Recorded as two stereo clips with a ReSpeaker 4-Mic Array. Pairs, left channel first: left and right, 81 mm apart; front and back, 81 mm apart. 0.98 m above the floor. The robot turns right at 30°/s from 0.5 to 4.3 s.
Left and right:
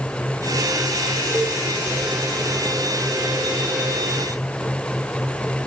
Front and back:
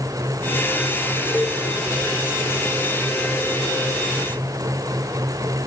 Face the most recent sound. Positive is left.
turn(degrees=135)